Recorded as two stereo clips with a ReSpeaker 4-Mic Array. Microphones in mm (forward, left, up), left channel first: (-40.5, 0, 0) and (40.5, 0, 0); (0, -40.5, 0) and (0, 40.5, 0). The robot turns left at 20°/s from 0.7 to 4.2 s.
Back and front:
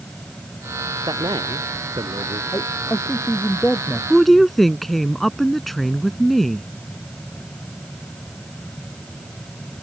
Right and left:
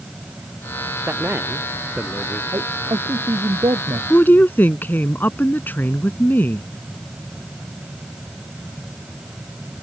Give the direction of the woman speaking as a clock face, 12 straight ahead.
3 o'clock.